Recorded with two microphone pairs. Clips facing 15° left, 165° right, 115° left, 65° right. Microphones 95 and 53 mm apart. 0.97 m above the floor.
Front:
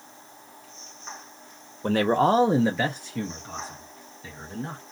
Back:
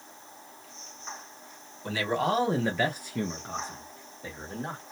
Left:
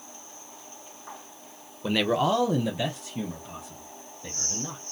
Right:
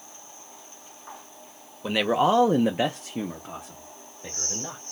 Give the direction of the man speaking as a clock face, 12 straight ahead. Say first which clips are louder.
Front 7 dB, right 2 dB; 11 o'clock.